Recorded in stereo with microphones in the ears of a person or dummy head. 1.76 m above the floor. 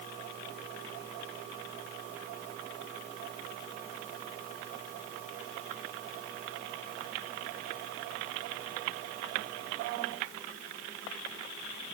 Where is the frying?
No frying in this recording.